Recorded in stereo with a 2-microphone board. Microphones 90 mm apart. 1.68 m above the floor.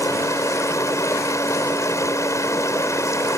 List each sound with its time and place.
0.0 s running water: 35° left (ahead or behind)